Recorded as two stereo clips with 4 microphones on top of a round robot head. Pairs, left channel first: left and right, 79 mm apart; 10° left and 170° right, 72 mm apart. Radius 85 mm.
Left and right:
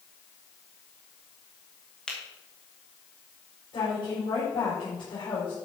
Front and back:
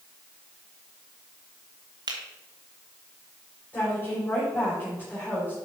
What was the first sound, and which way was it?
A finger snap, 175° left.